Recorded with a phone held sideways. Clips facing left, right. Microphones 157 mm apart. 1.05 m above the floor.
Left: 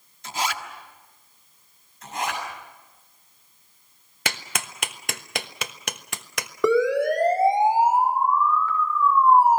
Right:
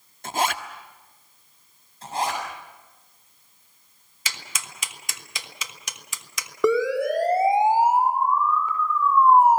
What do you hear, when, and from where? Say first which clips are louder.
0.2 s a zipper: right 3 dB; 55° right (ahead or behind), 1.5 m
2.0 s a zipper: right 3 dB; 35° right (ahead or behind), 7.5 m
4.2 s a clap: left 7 dB; 70° left (ahead or behind), 1.2 m
6.6 s a siren: left 1 dB; centre (ahead or behind), 4.5 m; by 9.6 s 25° right (ahead or behind), 6.5 m